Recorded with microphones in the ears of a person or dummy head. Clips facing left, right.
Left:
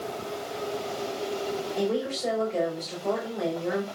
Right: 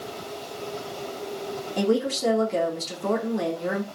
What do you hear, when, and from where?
1.8 s a woman speaking: 80° right, 3 m